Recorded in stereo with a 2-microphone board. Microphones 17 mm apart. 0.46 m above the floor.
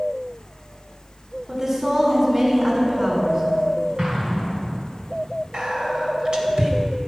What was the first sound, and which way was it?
A woman speaking, 40° right (ahead or behind).